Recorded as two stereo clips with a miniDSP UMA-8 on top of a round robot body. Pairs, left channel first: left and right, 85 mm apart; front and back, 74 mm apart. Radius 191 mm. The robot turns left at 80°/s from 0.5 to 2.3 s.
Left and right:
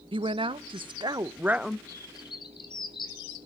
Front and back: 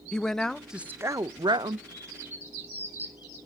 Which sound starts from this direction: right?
A woman speaking, at 0.1 s.